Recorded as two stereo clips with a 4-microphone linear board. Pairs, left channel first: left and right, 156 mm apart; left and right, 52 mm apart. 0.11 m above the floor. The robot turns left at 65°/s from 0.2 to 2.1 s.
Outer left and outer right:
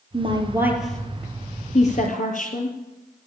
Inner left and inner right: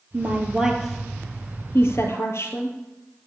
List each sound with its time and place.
0.1 s a woman speaking: 35° right (ahead or behind), 2.5 m; by 2.8 s 60° left (ahead or behind), 2.5 m